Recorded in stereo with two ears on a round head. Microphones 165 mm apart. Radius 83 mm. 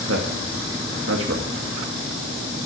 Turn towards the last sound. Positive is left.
turn(degrees=-80)